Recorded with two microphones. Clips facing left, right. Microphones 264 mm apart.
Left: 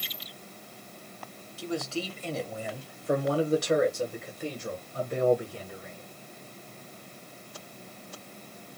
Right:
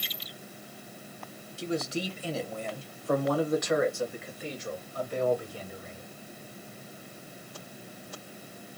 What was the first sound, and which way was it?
A man speaking, 30° right (ahead or behind).